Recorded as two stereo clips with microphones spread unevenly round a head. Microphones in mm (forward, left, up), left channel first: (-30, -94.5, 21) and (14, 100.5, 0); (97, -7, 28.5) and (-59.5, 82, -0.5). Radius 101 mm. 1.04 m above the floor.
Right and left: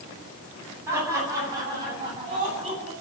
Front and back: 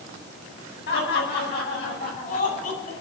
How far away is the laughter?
About 9.5 m.